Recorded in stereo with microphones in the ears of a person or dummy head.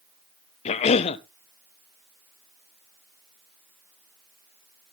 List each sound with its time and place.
0.7 s a cough: 35° left (ahead or behind), 0.9 m